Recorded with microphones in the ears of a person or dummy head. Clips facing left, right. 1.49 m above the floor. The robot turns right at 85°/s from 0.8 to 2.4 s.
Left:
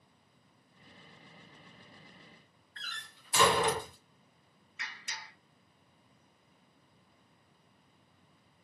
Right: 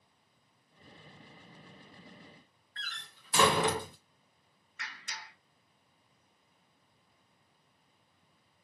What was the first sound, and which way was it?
A door slam, 45° right (ahead or behind).